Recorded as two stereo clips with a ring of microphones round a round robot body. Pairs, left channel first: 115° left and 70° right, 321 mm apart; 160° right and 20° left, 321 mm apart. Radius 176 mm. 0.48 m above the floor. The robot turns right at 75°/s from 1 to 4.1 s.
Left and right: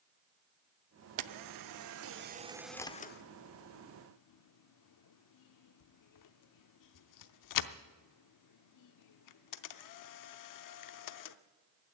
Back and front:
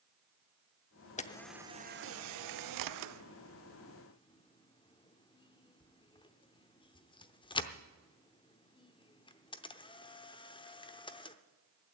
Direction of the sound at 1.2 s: 90° right.